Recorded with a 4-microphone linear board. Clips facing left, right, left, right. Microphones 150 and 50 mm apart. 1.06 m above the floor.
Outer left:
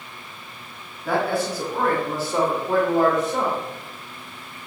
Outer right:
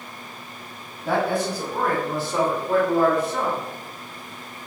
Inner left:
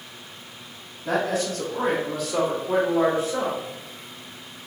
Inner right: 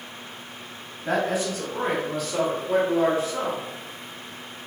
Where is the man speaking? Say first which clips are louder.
Even, even; 25° right (ahead or behind), 1.4 m; by 3.6 s 30° left (ahead or behind), 1.6 m.